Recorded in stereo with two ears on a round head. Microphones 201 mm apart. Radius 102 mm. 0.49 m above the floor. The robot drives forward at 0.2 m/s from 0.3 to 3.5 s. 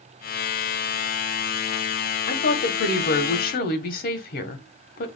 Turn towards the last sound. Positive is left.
turn(degrees=40)  # may be behind; listen again after turning